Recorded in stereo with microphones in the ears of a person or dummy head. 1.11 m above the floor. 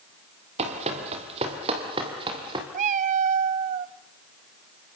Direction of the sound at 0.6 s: 35° right (ahead or behind).